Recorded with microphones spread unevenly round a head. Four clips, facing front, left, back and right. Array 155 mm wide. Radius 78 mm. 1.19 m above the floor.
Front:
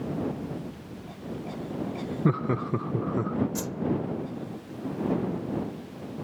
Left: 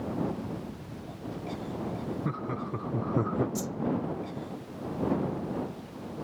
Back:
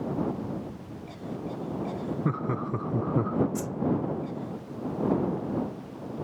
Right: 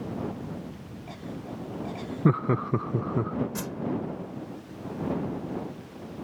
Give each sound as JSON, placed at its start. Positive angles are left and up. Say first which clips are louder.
{"t": 2.2, "sound": "laughter", "louder": "right 9 dB, front 6 dB", "azimuth_deg": -60}
{"t": 3.5, "sound": "a whoosh", "louder": "even, back 1 dB", "azimuth_deg": -65}